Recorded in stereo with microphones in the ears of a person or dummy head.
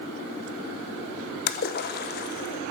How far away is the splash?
About 0.7 m.